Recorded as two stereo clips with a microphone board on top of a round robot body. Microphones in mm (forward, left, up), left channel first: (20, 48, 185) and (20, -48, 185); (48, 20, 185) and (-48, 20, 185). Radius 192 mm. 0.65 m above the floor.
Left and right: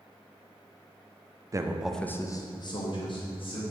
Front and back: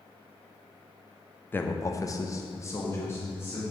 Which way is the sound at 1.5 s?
60° right.